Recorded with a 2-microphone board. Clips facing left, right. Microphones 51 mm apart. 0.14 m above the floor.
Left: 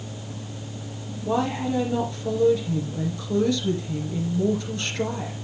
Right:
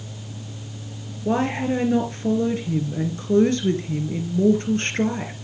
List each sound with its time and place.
1.2 s a woman speaking: 45° right (ahead or behind), 2 m